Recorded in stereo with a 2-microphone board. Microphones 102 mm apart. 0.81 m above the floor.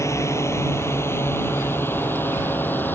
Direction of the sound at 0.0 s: 25° left (ahead or behind).